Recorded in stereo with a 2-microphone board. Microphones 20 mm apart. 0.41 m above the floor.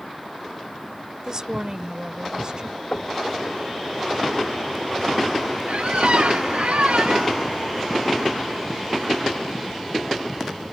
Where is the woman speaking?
30° right (ahead or behind); by 2.8 s 40° right (ahead or behind).